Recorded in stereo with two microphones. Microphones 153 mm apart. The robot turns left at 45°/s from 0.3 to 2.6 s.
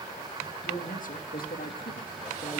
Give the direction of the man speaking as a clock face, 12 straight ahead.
8 o'clock.